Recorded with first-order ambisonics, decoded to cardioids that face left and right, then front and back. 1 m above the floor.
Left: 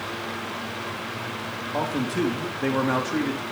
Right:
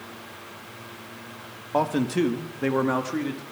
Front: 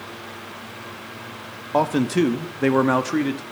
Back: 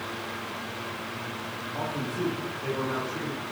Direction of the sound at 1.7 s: 20° right.